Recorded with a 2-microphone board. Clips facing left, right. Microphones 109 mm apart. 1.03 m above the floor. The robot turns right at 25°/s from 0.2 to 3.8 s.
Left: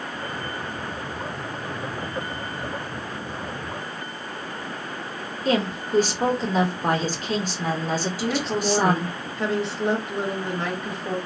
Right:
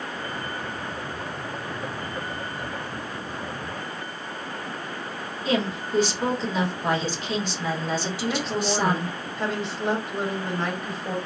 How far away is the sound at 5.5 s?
About 1.2 m.